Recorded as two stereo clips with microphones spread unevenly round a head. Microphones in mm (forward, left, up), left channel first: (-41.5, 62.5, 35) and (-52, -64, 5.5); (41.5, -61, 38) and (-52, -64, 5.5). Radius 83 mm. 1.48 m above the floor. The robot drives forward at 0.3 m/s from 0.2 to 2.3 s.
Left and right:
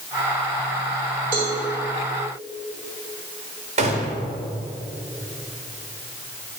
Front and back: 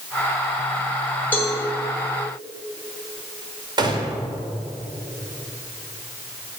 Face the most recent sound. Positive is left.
turn(degrees=-130)